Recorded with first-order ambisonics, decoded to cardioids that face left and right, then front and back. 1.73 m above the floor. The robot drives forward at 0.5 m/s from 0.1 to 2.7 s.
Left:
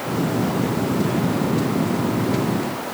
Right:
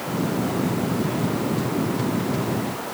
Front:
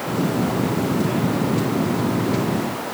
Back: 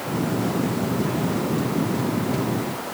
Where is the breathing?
I don't hear breathing.